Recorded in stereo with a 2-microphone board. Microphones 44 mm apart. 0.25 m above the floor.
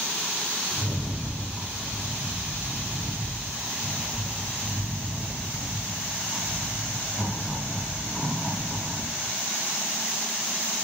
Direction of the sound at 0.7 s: 10° left (ahead or behind).